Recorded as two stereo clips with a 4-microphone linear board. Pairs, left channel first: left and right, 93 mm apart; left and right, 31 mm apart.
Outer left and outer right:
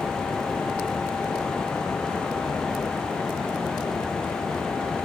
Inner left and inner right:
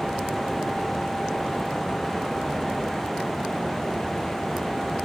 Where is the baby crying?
No baby crying in this recording.